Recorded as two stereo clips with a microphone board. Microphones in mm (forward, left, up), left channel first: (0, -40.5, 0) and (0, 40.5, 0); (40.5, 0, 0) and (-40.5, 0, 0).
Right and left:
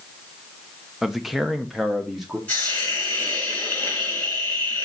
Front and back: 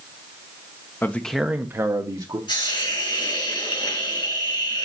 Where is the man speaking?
Straight ahead, 0.7 m; by 2.4 s 175° left, 1.2 m.